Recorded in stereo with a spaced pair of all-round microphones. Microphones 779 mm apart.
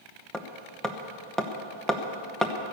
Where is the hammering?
Centre (ahead or behind), 1.0 m.